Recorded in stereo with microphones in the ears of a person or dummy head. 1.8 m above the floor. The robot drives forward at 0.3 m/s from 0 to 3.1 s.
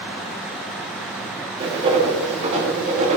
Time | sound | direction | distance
1.6 | writing | 30° right (ahead or behind) | 3 m